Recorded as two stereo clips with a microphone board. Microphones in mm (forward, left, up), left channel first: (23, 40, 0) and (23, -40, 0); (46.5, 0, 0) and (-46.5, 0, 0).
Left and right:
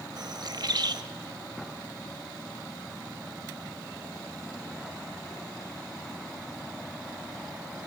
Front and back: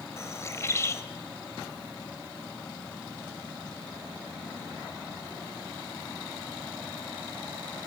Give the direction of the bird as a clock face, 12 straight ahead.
2 o'clock.